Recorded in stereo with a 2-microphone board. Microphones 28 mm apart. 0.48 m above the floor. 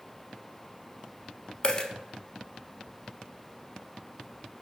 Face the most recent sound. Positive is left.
turn(degrees=25)  # may be behind; listen again after turning